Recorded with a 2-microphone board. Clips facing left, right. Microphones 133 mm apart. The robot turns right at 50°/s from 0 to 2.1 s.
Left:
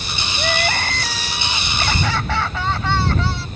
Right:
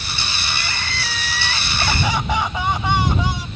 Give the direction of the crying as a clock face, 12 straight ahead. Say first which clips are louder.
Left 12 dB; 8 o'clock.